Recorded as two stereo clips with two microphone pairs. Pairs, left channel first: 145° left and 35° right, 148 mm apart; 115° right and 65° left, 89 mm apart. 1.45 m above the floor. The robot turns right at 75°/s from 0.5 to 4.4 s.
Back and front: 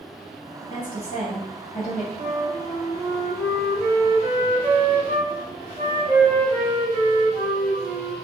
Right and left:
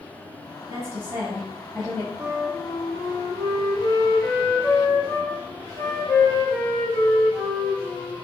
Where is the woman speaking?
85° left, 1.1 m; by 2.1 s 170° right, 1.1 m.